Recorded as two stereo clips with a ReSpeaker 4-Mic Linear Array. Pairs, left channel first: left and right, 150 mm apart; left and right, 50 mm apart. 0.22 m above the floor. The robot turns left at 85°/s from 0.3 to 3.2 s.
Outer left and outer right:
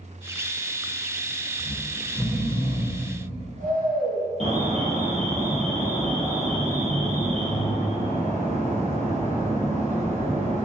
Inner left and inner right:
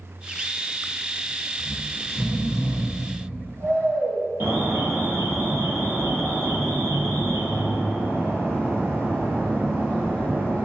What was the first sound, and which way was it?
Snoring, 65° left.